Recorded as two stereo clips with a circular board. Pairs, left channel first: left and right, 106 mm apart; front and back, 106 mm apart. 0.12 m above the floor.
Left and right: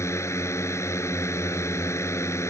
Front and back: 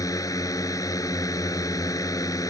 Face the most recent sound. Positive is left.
turn(degrees=40)